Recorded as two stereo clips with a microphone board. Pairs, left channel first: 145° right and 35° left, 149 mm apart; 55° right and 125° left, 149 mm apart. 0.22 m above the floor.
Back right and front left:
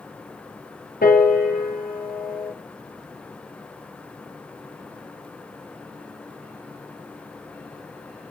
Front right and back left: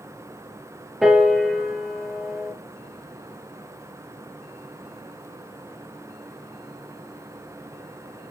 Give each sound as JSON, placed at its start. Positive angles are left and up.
{"t": 1.0, "sound": "a piano", "azimuth_deg": -145, "distance_m": 2.5}